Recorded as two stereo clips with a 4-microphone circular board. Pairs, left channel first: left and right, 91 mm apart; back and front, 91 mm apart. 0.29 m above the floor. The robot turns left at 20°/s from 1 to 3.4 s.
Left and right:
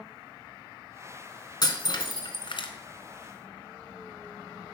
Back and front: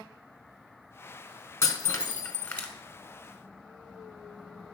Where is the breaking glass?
120° left, 1.4 m; by 2.7 s 100° left, 1.4 m.